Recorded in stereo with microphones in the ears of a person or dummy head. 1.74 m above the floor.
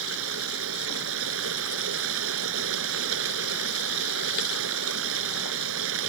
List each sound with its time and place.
0.0 s running water: 70° right (ahead or behind)